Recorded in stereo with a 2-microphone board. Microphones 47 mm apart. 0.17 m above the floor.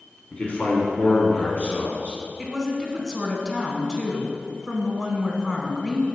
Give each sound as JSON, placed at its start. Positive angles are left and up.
{"t": 0.3, "sound": "a man speaking", "side_deg": 35, "distance_m": 1.3}
{"t": 2.4, "sound": "a woman speaking", "side_deg": 10, "distance_m": 1.2}